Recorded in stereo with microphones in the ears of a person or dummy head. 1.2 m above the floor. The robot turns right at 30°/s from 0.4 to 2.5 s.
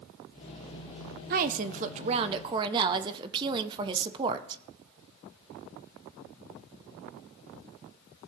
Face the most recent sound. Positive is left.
turn(degrees=-30)